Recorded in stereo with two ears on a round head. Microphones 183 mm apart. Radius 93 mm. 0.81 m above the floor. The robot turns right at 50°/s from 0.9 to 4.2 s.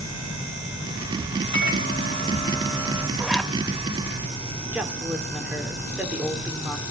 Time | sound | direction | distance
1.5 | a microwave | 110° left | 3.5 m
3.2 | a zipper | 5° right (ahead or behind) | 0.6 m
4.7 | a woman speaking | 5° right (ahead or behind) | 2.5 m